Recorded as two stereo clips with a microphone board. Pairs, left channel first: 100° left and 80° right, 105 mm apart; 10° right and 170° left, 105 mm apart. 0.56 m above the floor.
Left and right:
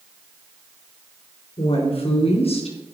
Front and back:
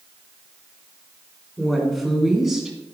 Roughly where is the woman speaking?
Left.